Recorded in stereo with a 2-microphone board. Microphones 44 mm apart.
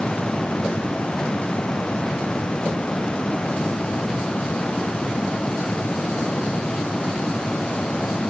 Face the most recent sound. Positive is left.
No sound to turn to.